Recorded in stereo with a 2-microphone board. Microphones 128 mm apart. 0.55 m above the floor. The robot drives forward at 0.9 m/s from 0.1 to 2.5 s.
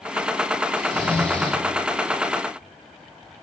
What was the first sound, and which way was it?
Snoring, 5° left (ahead or behind).